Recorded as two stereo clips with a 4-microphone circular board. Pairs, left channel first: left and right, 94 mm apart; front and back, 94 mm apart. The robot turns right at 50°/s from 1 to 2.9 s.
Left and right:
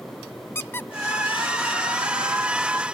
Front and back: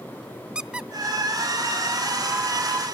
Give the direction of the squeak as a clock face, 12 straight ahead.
8 o'clock.